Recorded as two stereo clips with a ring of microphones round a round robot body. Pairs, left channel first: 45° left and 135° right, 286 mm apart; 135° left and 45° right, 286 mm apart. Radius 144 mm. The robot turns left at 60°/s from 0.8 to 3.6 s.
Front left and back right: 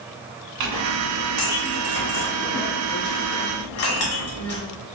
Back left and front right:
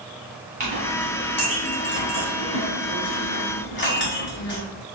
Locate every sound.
0.6 s a clink: 105° right, 1.4 m; by 4.6 s 85° left, 1.4 m